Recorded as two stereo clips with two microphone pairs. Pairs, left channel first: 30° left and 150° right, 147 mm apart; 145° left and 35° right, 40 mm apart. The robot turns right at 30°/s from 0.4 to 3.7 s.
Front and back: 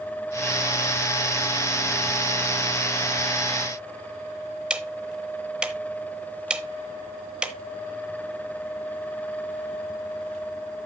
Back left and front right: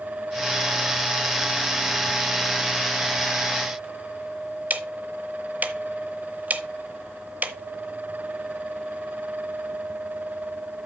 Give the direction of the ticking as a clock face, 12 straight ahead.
2 o'clock.